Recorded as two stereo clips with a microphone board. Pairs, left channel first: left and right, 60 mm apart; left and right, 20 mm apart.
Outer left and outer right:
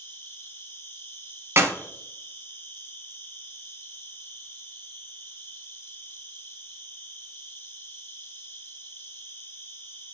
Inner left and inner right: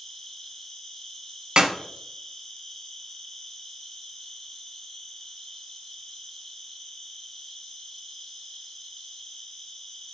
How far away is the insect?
About 2.5 m.